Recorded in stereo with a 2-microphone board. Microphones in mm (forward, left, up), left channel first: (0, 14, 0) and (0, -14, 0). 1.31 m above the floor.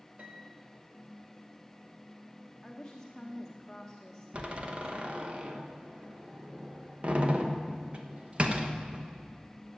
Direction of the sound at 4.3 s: 40° right (ahead or behind).